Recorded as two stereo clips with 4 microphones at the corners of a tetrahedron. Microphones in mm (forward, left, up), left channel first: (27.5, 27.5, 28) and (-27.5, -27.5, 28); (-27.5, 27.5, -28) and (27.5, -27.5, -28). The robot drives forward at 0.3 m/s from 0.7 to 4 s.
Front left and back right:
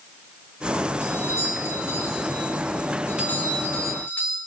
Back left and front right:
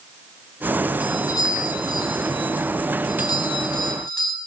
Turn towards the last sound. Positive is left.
turn(degrees=110)